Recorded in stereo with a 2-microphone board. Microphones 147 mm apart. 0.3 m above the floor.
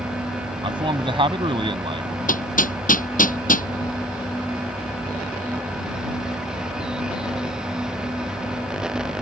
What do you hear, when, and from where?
0.6 s a man speaking: 35° right (ahead or behind)
2.3 s hammering: 65° left (ahead or behind)